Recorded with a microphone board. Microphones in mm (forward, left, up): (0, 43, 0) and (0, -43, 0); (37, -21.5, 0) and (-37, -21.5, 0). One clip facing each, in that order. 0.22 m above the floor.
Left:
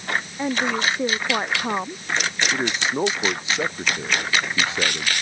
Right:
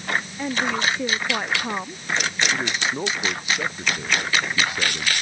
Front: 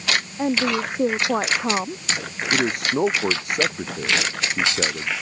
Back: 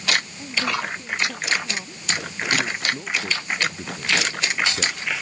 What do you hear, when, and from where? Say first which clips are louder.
0.4 s a woman speaking: left 2 dB, front 5 dB; 15° left
2.5 s a man speaking: left 2 dB, front 4 dB; 25° left